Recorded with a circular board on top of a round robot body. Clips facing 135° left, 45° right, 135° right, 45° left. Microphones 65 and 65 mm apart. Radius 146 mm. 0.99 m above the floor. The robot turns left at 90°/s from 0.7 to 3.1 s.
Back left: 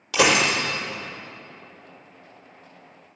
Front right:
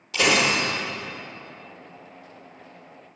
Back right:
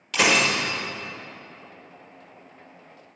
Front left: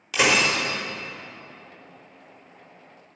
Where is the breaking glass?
125° left, 0.8 m.